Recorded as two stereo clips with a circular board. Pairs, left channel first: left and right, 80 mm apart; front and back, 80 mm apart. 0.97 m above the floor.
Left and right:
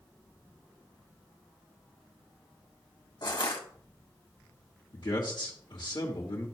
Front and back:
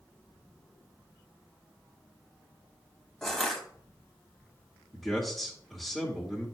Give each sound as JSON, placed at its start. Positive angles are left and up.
{"t": 3.2, "sound": "crushing", "azimuth_deg": 85, "distance_m": 1.5}
{"t": 4.9, "sound": "a man speaking", "azimuth_deg": 90, "distance_m": 1.7}